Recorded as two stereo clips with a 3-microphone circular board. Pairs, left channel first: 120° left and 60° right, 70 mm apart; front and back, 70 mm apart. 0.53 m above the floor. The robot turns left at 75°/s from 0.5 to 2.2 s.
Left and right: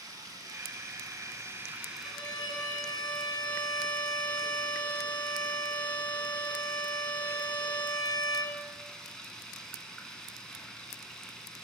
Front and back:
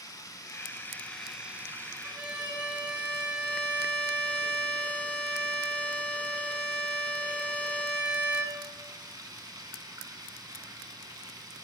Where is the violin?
125° left, 0.8 m; by 8.6 s 115° left, 0.8 m.